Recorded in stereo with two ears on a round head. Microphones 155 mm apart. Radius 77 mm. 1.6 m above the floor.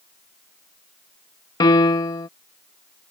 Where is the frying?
I don't hear frying.